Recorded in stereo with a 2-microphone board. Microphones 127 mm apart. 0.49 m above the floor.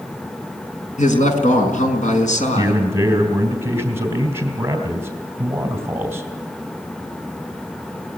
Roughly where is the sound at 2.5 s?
Right.